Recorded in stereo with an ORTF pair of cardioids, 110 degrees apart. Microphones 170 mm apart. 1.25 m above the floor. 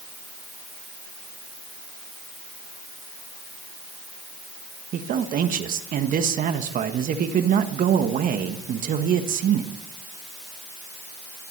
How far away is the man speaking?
About 1.4 m.